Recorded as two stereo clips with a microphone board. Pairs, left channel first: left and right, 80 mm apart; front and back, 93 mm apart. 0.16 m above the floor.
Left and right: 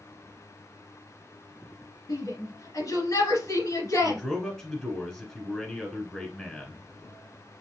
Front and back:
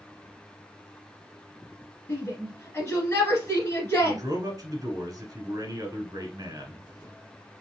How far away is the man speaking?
About 1.5 m.